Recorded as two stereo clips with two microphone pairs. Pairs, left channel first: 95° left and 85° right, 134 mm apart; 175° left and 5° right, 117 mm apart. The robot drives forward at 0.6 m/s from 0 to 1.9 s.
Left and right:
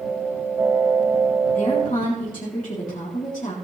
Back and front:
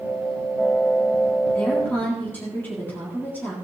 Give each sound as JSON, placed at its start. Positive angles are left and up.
{"t": 1.6, "sound": "a woman speaking", "azimuth_deg": 95, "distance_m": 3.5}